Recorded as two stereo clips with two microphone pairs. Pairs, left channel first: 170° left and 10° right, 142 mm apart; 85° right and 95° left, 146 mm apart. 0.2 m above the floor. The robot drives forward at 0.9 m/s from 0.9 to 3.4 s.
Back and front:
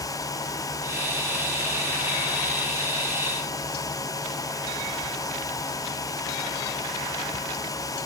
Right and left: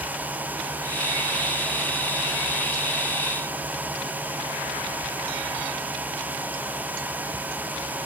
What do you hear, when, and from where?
Only background noise.